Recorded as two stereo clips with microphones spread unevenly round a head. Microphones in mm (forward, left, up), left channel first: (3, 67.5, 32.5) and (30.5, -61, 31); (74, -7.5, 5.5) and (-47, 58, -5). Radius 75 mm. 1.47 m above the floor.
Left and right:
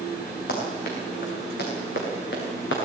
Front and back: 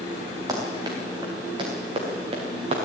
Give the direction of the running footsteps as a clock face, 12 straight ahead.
9 o'clock.